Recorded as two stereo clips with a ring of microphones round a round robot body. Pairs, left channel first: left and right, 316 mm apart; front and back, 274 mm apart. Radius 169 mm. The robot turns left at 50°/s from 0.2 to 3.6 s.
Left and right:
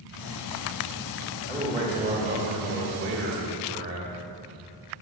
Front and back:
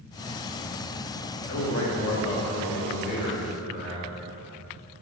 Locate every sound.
1.5 s a man speaking: 15° right, 1.2 m; by 4.1 s 125° right, 1.2 m